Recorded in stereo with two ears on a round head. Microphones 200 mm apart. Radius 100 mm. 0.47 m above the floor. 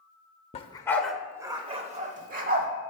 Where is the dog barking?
30° left (ahead or behind), 0.6 m; by 2.7 s 40° right (ahead or behind), 1.1 m.